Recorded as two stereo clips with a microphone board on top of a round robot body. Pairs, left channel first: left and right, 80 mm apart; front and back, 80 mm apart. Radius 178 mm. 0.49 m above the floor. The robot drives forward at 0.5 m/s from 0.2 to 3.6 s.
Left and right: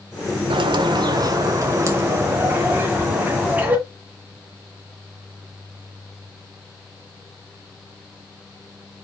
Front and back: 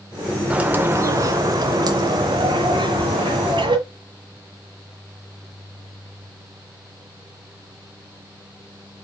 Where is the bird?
100° right, 0.6 m; by 3.8 s 160° right, 1.8 m.